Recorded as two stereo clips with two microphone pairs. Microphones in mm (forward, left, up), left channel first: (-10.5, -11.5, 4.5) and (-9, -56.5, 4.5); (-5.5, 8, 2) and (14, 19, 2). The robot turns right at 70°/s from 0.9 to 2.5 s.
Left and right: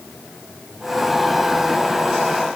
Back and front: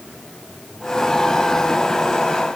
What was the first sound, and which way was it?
Only background noise.